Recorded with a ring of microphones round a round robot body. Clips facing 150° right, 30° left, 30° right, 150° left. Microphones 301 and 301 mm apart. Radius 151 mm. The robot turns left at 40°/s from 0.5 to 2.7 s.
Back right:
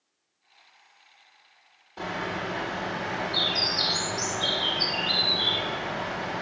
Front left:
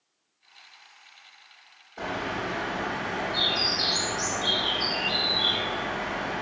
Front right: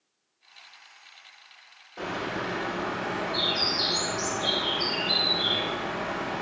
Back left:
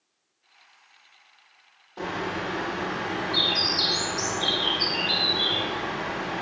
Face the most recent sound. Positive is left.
turn(degrees=-160)